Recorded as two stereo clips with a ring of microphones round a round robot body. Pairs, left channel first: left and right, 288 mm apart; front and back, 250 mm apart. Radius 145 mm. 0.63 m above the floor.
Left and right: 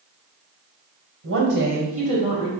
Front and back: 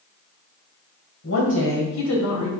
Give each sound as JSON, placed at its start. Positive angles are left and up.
{"t": 1.2, "sound": "a woman speaking", "azimuth_deg": -45, "distance_m": 2.5}